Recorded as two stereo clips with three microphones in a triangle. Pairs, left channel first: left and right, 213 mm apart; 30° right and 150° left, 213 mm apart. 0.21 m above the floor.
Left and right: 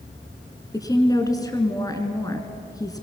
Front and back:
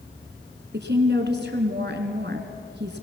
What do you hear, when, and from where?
0.7 s a woman speaking: 160° left, 2.5 m